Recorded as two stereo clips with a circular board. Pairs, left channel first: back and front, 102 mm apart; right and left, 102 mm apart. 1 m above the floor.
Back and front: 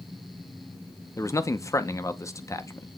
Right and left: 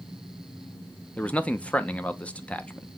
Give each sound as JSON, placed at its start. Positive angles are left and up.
{"t": 1.2, "sound": "a man speaking", "azimuth_deg": -155, "distance_m": 0.6}